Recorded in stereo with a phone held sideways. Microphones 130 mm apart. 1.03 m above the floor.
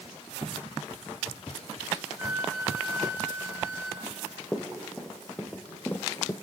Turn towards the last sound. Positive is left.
turn(degrees=20)  # may be behind; listen again after turning